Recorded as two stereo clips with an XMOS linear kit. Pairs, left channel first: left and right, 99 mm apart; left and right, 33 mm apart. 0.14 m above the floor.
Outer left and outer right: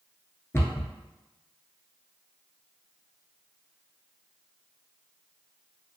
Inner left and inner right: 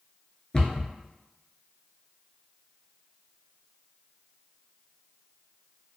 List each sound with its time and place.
0.5 s a cupboard door: 25° left (ahead or behind), 0.6 m